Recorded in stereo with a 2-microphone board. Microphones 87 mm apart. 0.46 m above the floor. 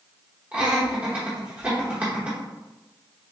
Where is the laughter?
15° right (ahead or behind), 1.0 m.